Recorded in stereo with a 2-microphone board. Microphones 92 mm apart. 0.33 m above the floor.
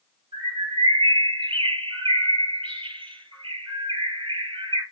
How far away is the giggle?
No giggle in this recording.